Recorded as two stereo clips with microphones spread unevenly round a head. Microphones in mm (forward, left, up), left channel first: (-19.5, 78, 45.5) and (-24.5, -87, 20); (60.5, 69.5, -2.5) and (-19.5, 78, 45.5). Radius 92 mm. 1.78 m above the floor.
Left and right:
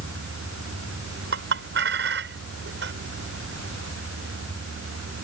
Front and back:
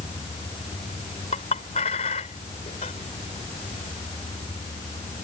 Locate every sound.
1.3 s a clink: 60° right